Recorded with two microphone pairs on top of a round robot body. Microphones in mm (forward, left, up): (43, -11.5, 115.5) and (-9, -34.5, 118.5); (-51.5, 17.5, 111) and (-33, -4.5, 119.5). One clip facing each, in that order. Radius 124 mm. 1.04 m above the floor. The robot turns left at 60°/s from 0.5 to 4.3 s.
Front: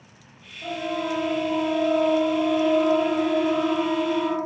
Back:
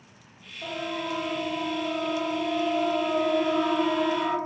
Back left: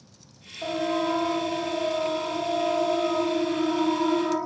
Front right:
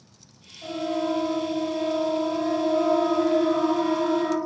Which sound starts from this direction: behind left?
A siren, at 0.6 s.